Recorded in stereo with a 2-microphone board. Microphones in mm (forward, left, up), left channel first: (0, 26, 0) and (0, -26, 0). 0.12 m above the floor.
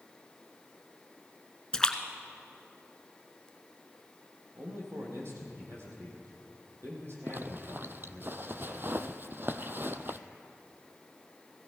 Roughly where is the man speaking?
Right.